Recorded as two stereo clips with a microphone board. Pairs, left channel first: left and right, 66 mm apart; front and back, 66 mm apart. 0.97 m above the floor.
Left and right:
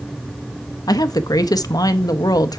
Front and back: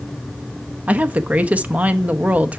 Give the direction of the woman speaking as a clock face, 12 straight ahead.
8 o'clock.